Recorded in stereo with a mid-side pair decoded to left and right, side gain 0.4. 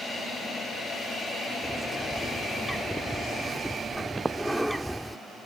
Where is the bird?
5° right.